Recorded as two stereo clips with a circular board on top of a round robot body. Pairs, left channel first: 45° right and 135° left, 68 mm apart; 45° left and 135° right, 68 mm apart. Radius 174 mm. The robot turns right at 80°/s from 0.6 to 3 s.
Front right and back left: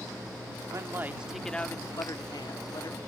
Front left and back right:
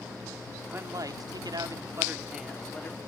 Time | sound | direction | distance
0.7 | a man speaking | 170° left | ?